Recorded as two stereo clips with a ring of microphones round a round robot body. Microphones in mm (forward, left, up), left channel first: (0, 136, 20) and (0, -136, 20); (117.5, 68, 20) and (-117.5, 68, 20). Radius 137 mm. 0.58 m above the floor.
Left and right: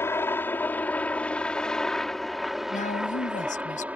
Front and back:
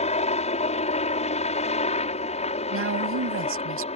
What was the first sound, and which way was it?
A helicopter, 20° left.